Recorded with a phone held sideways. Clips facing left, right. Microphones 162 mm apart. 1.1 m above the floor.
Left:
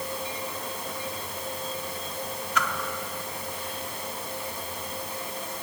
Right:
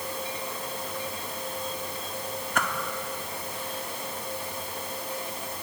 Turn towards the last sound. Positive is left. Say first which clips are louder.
# even
turn(degrees=-55)  # may be behind; listen again after turning